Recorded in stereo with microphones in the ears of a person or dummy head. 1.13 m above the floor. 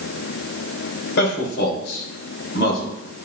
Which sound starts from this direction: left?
A man speaking, at 1.2 s.